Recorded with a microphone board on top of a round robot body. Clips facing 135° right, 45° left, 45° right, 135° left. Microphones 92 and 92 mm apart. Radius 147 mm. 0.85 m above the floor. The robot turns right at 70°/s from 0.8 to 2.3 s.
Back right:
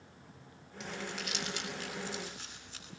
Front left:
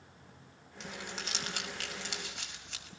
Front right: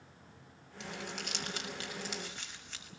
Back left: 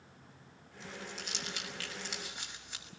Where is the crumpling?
50° right, 5.5 m; by 2.9 s 55° left, 5.5 m.